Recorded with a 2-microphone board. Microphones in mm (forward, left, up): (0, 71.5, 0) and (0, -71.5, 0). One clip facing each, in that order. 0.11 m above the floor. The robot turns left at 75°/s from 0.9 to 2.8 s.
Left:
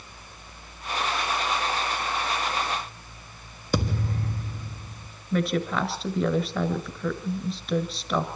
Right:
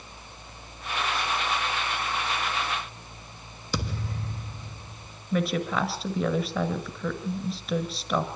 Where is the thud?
50° left (ahead or behind), 1.3 m.